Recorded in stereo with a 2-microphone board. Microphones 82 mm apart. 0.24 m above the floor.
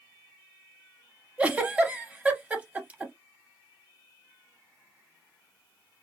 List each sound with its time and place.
1.4 s a giggle: 15° right (ahead or behind), 0.6 m